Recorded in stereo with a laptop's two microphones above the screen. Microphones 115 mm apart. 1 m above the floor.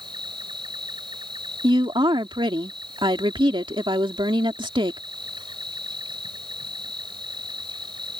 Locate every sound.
0.0 s an insect: 45° right (ahead or behind)
1.6 s a woman speaking: 45° right (ahead or behind)